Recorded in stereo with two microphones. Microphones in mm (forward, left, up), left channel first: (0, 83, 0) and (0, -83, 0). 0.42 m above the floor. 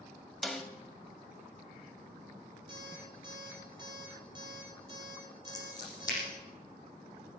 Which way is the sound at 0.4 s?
Centre (ahead or behind).